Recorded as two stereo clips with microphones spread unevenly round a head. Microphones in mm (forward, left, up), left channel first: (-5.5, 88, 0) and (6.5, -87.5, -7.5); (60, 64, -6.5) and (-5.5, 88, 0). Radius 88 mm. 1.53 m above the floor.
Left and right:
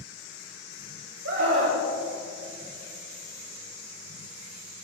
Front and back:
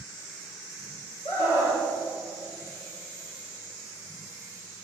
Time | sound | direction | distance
1.2 | a scream | 70° right | 4.5 m